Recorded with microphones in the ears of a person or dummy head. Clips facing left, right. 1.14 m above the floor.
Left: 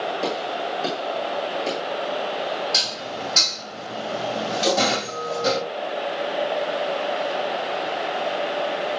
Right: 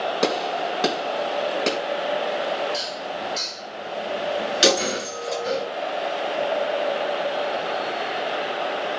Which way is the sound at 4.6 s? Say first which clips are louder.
Even; 80° right.